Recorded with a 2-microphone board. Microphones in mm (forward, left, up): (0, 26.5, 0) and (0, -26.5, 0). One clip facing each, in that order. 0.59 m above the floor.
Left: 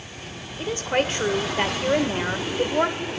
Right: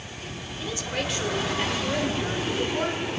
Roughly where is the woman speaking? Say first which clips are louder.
Left 7 dB; left.